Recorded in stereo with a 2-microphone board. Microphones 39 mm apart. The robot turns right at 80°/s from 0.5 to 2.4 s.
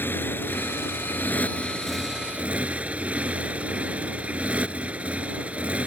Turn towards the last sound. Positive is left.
turn(degrees=-145)